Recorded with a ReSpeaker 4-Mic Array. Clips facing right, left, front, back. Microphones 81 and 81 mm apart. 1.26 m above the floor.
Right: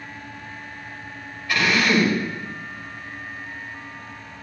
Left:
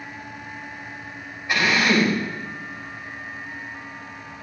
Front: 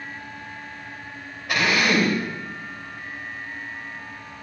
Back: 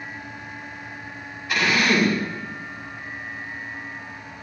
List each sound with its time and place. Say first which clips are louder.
1.5 s a drill: even, even; 20° left, 2.5 m